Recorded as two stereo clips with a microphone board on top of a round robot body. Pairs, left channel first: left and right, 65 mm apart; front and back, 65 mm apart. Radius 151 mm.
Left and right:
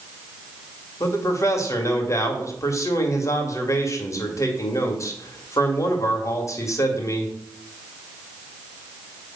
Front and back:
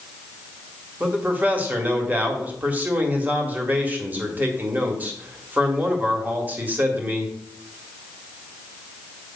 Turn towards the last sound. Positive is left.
turn(degrees=115)